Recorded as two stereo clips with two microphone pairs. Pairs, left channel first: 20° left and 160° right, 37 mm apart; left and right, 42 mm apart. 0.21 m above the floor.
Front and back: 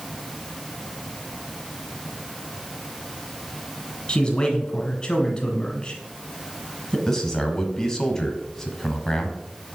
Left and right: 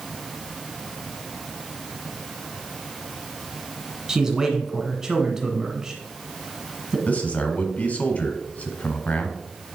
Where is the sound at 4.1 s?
25° right, 1.6 m.